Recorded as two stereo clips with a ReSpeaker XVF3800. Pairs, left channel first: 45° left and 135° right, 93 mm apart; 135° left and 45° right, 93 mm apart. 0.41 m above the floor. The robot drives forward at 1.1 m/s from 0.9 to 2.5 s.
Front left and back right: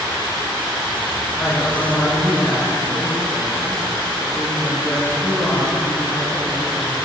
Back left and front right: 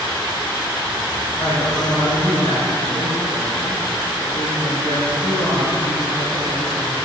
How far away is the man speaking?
About 5.5 m.